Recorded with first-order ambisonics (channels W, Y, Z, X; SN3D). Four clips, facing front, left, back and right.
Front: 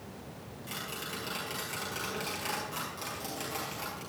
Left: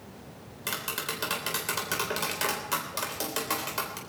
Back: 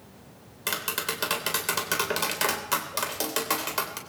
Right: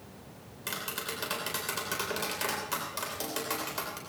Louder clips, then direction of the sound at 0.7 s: Left 3 dB, back 10 dB; 165° left.